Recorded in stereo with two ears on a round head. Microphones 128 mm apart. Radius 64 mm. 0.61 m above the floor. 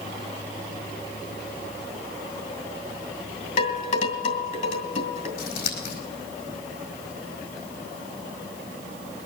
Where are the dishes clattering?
50° left (ahead or behind), 2.5 m.